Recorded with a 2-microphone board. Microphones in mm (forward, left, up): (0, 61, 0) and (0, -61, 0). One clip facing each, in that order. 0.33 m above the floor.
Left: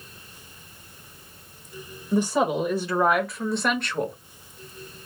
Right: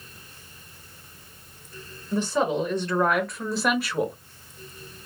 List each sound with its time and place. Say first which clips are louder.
2.1 s a woman speaking: left 2 dB; 15° left (ahead or behind), 1.4 m; by 4.2 s 10° right (ahead or behind), 1.3 m